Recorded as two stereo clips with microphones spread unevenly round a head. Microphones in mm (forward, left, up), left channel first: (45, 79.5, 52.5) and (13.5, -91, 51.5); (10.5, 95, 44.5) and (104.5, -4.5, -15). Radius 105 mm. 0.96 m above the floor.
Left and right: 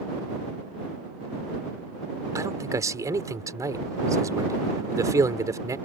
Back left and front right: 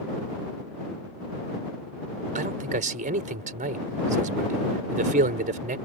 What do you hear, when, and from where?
2.4 s a man speaking: 30° right